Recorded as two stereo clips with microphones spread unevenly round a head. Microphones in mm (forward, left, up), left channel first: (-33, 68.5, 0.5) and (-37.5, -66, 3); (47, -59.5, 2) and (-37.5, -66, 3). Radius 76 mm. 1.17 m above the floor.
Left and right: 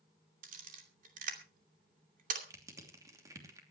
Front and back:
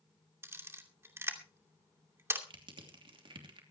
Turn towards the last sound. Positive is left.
turn(degrees=-160)